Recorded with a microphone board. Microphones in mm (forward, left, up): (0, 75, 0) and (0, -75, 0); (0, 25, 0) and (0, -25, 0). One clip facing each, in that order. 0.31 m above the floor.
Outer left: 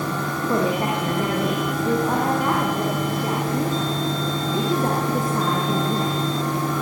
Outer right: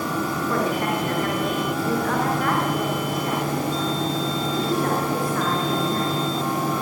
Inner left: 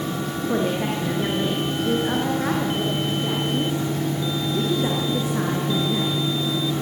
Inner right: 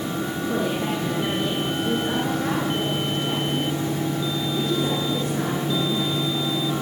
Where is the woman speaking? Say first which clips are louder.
Outer left 3 dB, inner left 2 dB; 20° left (ahead or behind), 4.5 m.